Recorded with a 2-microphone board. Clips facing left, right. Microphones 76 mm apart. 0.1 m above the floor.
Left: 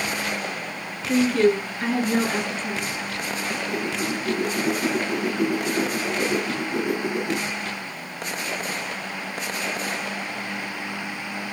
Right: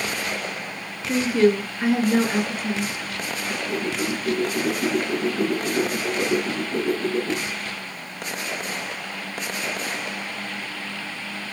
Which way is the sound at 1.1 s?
10° right (ahead or behind).